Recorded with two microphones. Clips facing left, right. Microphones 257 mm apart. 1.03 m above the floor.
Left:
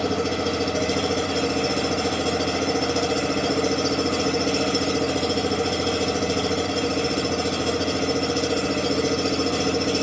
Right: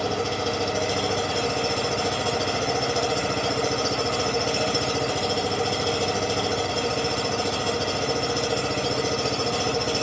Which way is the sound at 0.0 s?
25° left (ahead or behind).